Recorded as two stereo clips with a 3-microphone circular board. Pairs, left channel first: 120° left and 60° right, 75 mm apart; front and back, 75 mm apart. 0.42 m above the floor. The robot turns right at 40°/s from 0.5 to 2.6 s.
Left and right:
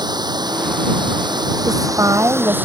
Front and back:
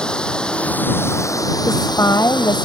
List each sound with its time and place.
0.0 s running water: 80° right; by 2.7 s 5° left
1.7 s a woman speaking: 45° right; by 2.7 s 10° right